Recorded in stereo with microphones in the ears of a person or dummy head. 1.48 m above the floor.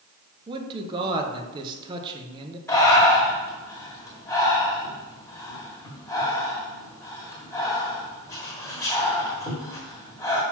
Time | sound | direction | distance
0.5 | a man speaking | 25° right (ahead or behind) | 0.9 m
2.7 | breathing | 15° left (ahead or behind) | 1.7 m